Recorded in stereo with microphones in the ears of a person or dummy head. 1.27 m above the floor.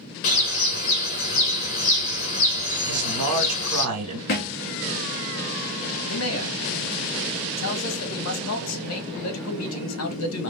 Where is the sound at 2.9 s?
80° right, 2 m.